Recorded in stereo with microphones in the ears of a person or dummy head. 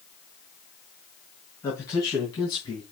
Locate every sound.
1.6 s a man speaking: 15° left (ahead or behind), 3 m; by 2.8 s 25° left (ahead or behind), 2.5 m